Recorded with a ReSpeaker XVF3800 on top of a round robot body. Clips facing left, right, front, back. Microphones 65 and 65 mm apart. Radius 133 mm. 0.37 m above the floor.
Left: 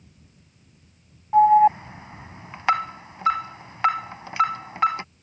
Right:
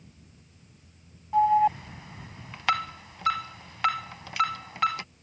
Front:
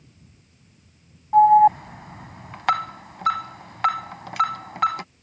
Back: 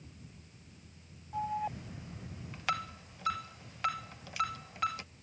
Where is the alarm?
25° left.